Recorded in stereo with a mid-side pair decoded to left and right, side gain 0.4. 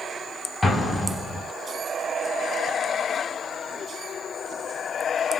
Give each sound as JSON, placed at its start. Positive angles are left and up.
{"t": 0.6, "sound": "an explosion", "azimuth_deg": 10, "distance_m": 1.5}